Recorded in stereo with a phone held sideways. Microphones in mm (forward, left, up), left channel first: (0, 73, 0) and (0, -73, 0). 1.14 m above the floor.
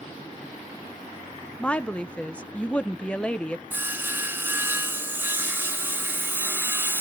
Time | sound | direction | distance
1.6 | a woman speaking | 10° left (ahead or behind) | 0.7 m
3.7 | sawing | 15° right (ahead or behind) | 1.9 m